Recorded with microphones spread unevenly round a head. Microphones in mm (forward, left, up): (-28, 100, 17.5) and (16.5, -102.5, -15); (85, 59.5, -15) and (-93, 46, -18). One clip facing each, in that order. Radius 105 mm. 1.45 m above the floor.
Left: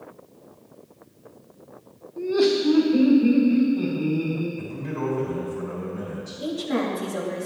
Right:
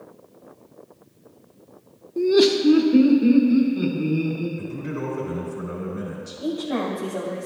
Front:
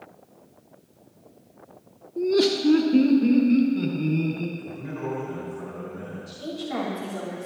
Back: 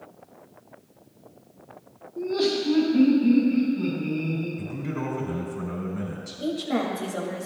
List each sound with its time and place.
2.2 s laughter: 65° right, 0.6 m; by 4.5 s 5° right, 3.5 m
4.6 s a man speaking: 150° right, 4 m
6.4 s a woman speaking: 150° left, 2.5 m